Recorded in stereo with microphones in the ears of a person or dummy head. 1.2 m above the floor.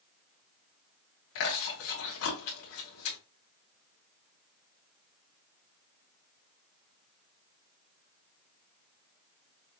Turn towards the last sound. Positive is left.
turn(degrees=80)